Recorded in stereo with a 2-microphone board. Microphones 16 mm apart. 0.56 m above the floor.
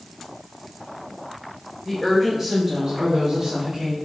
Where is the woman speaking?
Centre (ahead or behind), 1.5 m; by 3.9 s 70° right (ahead or behind), 2 m.